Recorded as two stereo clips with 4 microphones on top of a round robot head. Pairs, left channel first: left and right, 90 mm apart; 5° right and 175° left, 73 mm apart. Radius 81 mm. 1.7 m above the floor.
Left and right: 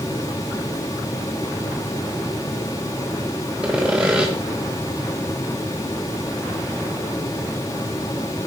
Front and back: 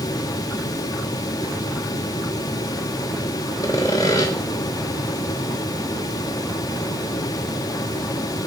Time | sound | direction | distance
3.6 | sawing | 10° right | 0.9 m